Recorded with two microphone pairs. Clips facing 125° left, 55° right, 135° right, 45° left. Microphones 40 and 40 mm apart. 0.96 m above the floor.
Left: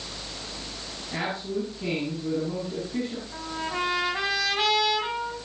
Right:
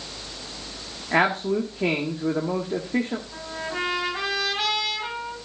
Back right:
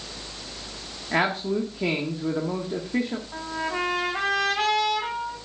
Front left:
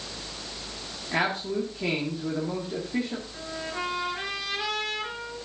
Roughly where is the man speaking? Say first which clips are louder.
Right 9 dB, back right 3 dB; ahead right.